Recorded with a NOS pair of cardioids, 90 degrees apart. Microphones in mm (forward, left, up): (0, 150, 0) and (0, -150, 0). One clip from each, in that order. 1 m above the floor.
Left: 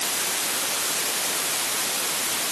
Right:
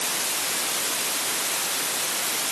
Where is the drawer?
No drawer in this recording.